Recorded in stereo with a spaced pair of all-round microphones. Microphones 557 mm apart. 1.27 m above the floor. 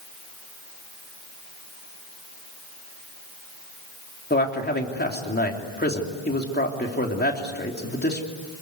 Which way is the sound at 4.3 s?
15° left (ahead or behind).